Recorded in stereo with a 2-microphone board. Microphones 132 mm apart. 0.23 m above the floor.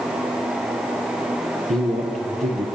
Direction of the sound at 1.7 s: 60° right (ahead or behind).